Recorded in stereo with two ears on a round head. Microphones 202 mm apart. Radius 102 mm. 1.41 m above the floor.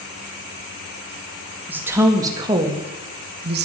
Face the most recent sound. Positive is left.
turn(degrees=-50)  # may be behind; listen again after turning